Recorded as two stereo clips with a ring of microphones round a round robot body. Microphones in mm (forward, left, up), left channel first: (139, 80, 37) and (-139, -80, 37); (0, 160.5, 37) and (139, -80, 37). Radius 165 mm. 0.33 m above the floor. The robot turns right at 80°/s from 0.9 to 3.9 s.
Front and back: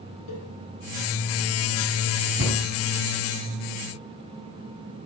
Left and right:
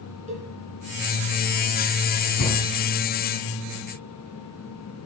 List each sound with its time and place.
0.3 s a cowbell: 5° left, 3 m
2.4 s a cupboard door: 160° left, 2.5 m; by 2.6 s 175° left, 2.5 m